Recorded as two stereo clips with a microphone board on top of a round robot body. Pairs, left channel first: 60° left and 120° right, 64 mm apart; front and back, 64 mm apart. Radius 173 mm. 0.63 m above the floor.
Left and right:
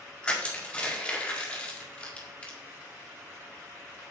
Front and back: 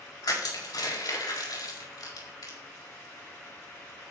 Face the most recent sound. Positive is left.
turn(degrees=-10)